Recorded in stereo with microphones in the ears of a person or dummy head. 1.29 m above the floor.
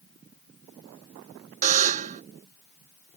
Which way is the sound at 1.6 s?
45° right (ahead or behind).